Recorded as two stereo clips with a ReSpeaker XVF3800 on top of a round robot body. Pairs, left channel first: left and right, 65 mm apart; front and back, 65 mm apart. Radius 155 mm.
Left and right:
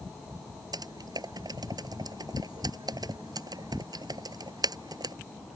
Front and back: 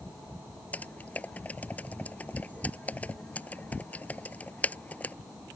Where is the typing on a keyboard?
70° right.